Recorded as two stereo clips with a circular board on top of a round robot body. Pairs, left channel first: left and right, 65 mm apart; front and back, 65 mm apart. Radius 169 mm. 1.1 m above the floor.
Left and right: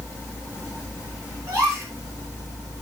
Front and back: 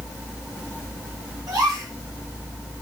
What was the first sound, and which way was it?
A gasp, 145° right.